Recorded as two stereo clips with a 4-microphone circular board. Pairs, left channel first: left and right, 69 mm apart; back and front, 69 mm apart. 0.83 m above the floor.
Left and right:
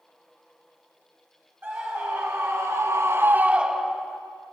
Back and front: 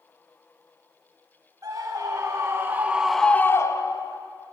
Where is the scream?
35° right, 2.5 m; by 4.2 s straight behind, 1.7 m.